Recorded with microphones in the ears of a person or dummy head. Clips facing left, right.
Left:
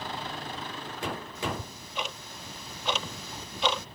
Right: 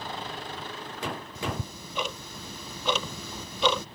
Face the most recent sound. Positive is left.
turn(degrees=-85)